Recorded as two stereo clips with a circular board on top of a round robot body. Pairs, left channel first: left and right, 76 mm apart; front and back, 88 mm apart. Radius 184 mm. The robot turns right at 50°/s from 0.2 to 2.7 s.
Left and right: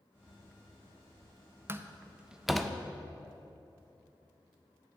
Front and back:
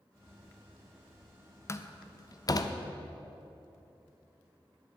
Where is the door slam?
45° right, 0.7 m; by 2.8 s 10° left, 0.7 m.